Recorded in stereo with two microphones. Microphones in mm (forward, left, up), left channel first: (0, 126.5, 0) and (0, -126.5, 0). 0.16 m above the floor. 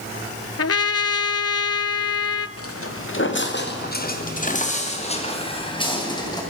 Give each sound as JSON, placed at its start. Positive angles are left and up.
{"t": 0.6, "sound": "a trumpet", "side_deg": 70, "distance_m": 0.5}
{"t": 2.6, "sound": "footsteps", "side_deg": 65, "distance_m": 3.0}